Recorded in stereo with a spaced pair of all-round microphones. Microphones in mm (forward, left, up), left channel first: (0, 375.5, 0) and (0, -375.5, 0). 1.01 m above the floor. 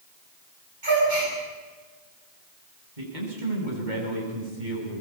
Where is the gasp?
85° right, 9.5 m.